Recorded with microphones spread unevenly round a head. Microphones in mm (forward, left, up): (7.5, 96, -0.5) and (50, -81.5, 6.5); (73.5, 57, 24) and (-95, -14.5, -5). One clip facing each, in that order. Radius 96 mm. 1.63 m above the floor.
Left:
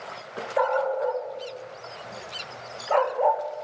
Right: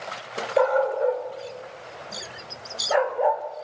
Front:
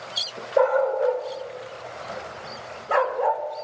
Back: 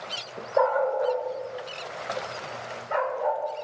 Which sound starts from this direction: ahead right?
A dog barking, at 0.6 s.